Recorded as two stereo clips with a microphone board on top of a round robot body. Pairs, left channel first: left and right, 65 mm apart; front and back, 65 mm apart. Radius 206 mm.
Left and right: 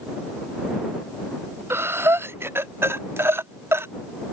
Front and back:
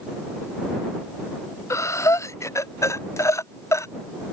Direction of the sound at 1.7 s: 40° right.